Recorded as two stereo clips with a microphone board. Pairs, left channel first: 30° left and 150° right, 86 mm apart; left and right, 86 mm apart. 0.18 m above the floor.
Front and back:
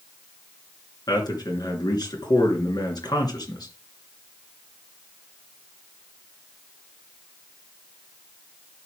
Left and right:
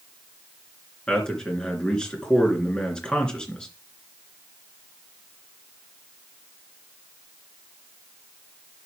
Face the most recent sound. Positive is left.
turn(degrees=10)